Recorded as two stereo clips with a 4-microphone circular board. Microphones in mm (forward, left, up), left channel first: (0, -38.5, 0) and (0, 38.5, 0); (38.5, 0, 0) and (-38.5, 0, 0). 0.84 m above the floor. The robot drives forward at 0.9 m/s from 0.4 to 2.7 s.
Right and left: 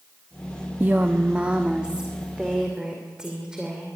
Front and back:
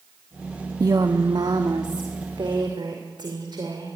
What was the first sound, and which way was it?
A woman speaking, 155° left.